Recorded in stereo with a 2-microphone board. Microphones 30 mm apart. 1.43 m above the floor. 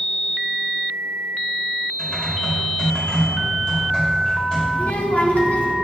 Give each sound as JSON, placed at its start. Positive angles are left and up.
{"t": 2.0, "sound": "typing on a keyboard", "side_deg": 30, "distance_m": 4.0}
{"t": 4.7, "sound": "a child speaking", "side_deg": 60, "distance_m": 1.8}